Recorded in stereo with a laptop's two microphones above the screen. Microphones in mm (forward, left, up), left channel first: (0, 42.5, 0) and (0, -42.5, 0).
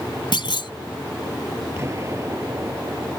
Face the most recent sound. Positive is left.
turn(degrees=-35)  # may be behind; listen again after turning